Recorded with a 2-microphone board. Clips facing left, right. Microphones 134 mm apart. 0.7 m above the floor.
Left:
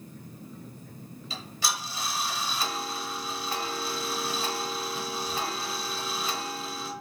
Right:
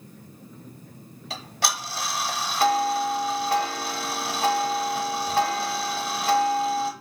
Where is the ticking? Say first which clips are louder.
Right 4 dB; 60° right (ahead or behind), 0.9 m.